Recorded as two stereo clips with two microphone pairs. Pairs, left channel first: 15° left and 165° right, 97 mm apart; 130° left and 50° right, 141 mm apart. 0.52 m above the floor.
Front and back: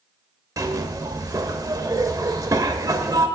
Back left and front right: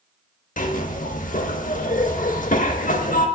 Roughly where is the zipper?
Behind left.